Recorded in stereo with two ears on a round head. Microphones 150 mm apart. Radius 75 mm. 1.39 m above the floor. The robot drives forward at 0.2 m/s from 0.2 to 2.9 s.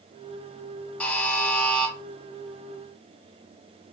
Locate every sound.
1.0 s a buzzer: 5° left (ahead or behind), 0.8 m